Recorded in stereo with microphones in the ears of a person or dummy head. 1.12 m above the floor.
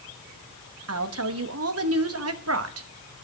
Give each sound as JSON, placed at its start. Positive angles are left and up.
{"t": 0.9, "sound": "a woman speaking", "side_deg": -80, "distance_m": 1.6}